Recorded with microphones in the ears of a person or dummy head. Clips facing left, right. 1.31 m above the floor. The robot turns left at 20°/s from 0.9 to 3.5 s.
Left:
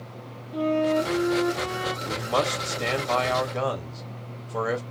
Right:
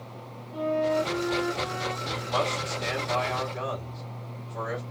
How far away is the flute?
About 1.1 m.